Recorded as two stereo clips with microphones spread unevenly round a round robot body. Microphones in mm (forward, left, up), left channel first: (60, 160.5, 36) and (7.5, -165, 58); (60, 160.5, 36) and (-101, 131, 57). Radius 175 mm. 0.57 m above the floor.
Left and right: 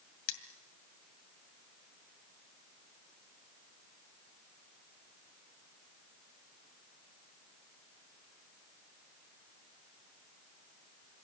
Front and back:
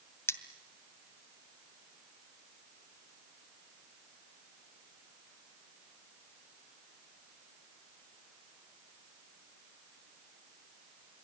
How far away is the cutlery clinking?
About 2 m.